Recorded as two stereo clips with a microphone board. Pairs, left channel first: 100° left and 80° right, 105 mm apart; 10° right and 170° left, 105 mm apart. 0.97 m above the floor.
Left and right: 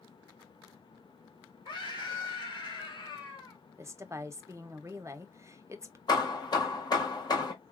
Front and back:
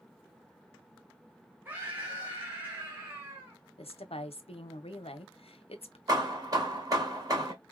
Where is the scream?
105° left, 0.7 m.